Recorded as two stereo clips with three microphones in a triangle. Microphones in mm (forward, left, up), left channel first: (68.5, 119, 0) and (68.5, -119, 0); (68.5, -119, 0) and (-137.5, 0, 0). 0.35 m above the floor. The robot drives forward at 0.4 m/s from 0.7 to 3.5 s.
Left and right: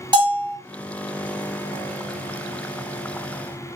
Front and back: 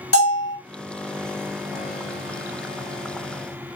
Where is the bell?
20° right, 1.4 m.